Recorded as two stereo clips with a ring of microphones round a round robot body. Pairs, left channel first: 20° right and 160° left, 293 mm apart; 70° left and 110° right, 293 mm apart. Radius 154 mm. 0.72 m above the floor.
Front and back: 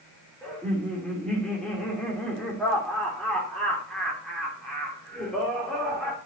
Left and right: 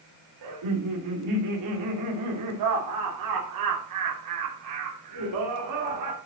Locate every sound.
0.4 s laughter: 110° right, 2 m